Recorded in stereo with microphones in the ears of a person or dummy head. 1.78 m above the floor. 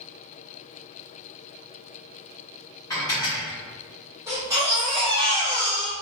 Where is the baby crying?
10° right (ahead or behind), 1.1 m.